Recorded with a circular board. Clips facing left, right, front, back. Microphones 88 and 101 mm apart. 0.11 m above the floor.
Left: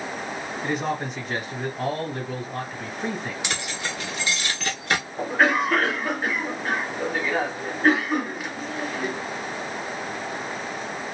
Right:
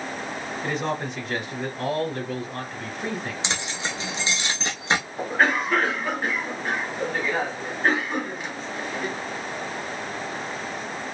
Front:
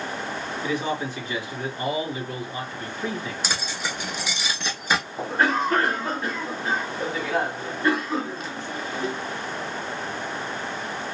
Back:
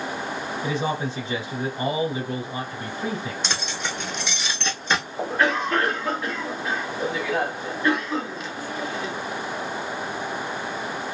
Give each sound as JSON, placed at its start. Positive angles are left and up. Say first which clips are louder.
{"t": 0.6, "sound": "a man speaking", "louder": "left 1 dB, back 1 dB", "azimuth_deg": 170, "distance_m": 1.5}
{"t": 3.4, "sound": "keys jangling", "louder": "even, back 1 dB", "azimuth_deg": -75, "distance_m": 0.8}
{"t": 5.2, "sound": "a cough", "louder": "left 3 dB, even", "azimuth_deg": 5, "distance_m": 1.3}